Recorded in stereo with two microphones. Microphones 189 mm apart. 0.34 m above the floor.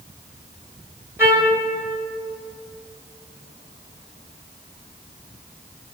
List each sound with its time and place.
1.2 s a trumpet: 10° right (ahead or behind), 1.4 m